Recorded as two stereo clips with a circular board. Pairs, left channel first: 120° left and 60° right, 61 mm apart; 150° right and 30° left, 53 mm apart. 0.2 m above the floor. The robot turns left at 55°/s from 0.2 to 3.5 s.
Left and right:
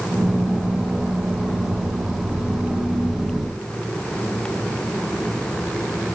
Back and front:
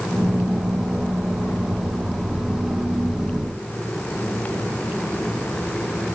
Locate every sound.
Only background noise.